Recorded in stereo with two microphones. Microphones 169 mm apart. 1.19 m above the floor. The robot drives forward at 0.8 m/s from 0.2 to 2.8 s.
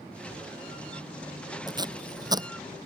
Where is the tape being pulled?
25° right (ahead or behind); by 2.5 s 20° right (ahead or behind).